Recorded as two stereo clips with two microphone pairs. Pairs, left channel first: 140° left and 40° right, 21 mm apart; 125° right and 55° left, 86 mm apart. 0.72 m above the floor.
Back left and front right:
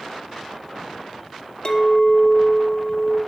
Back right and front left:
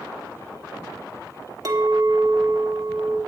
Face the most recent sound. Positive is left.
turn(degrees=100)